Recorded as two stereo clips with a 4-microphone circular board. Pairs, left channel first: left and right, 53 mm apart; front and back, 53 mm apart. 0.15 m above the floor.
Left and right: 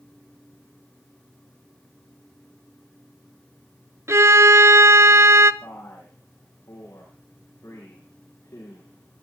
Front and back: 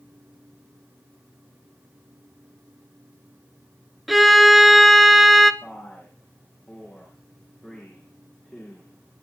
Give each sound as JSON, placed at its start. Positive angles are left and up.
{"t": 4.1, "sound": "a violin", "azimuth_deg": -90, "distance_m": 0.7}
{"t": 5.6, "sound": "a man speaking", "azimuth_deg": 75, "distance_m": 7.0}